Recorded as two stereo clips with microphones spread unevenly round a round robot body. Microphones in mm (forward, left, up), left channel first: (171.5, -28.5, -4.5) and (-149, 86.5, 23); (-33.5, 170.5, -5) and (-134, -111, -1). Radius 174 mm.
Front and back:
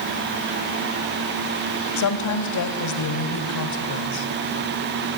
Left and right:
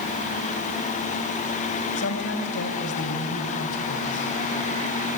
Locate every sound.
2.0 s a woman speaking: 15° left, 2.0 m